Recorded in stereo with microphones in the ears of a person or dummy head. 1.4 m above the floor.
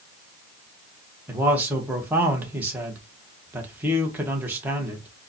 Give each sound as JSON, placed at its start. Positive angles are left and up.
{"t": 1.3, "sound": "a man speaking", "side_deg": -10, "distance_m": 1.0}